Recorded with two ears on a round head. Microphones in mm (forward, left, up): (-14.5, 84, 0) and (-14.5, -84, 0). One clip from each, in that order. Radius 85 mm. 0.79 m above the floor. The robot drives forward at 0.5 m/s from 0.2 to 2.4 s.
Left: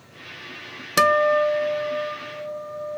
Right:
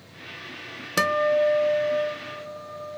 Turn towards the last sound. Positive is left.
turn(degrees=5)  # may be behind; listen again after turning